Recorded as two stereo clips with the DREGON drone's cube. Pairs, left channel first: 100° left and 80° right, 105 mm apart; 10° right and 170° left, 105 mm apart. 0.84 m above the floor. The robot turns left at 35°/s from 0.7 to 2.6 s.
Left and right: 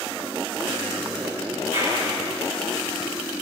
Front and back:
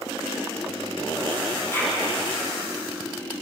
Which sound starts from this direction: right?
A clap, at 1.7 s.